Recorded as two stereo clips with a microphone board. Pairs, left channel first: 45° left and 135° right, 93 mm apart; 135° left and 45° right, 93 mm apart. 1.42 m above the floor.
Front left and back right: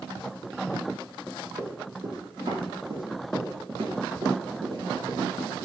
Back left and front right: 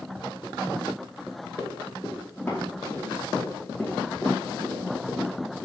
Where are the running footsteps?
165° right, 4 m; by 5.5 s 135° right, 1.9 m.